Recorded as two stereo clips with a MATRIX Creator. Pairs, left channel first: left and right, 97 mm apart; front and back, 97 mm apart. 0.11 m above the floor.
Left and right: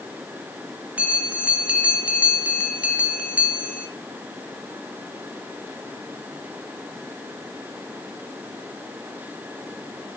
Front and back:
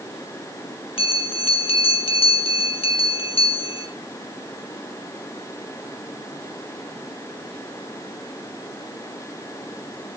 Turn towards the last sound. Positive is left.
turn(degrees=-15)